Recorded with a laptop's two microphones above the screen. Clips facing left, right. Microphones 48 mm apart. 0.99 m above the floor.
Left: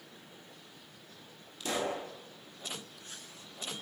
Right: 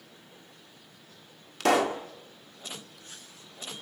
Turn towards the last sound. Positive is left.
turn(degrees=-85)